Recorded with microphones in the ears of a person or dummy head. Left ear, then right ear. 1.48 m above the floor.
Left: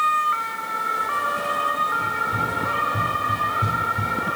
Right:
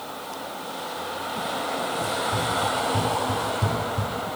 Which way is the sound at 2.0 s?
Centre (ahead or behind).